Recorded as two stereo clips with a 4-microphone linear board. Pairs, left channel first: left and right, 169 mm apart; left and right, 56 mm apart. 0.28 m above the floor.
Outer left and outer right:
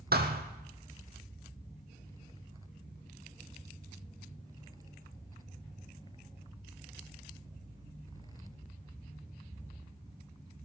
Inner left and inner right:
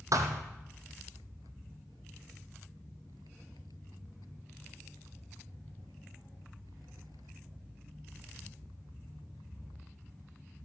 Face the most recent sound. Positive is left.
turn(degrees=-65)  # may be behind; listen again after turning